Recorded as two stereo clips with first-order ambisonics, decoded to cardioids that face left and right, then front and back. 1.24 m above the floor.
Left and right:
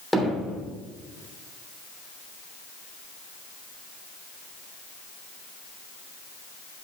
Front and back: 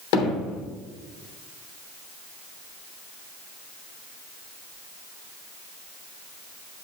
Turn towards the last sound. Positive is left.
turn(degrees=5)